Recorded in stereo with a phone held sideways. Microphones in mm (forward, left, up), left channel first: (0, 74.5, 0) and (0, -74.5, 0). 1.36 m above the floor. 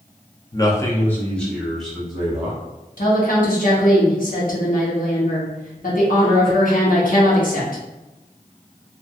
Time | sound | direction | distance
0.5 | a man speaking | 25° left (ahead or behind) | 0.6 m
3.0 | a woman speaking | 65° left (ahead or behind) | 1.0 m